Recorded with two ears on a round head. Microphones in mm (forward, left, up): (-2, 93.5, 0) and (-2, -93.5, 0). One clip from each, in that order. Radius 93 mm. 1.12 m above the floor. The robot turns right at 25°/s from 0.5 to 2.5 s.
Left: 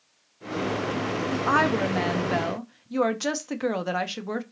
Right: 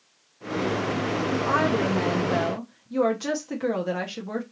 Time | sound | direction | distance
1.3 | a woman speaking | 45° left (ahead or behind) | 0.6 m